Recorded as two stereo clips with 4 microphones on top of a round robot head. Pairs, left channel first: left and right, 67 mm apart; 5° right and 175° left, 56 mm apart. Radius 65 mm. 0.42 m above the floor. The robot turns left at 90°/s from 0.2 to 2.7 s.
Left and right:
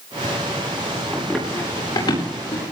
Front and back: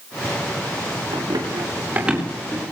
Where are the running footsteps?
165° right, 9 m; by 2.6 s 55° left, 9 m.